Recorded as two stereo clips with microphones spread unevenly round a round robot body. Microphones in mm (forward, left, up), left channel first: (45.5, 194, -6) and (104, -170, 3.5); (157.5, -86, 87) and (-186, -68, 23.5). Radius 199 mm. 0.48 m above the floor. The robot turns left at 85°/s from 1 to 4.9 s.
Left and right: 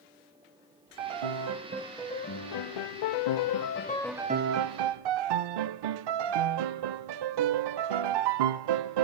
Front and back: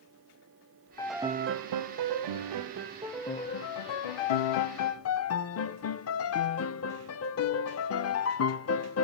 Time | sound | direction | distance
1.0 | a piano | 85° right | 0.6 m